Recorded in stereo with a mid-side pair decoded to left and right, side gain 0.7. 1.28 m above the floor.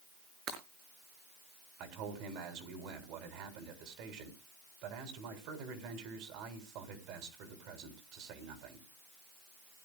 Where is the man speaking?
65° right, 3.5 m.